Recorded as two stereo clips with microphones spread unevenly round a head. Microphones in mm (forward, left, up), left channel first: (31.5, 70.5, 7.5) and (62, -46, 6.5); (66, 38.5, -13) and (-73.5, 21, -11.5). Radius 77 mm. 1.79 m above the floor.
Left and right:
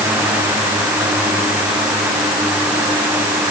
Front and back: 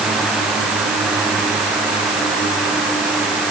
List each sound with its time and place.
Only background noise.